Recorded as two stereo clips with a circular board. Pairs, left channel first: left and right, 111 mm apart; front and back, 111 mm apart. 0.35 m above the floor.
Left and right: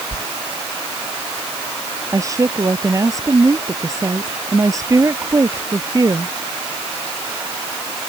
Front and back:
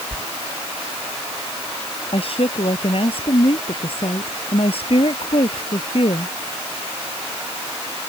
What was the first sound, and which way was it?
A sliding door, 65° left.